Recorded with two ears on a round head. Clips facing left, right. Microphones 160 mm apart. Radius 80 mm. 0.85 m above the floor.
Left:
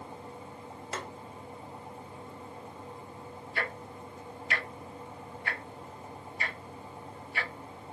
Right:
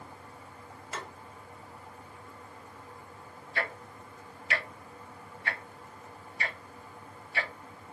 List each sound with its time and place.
0.9 s tapping: 55° left (ahead or behind), 1.1 m
3.5 s ticking: 60° right (ahead or behind), 1.5 m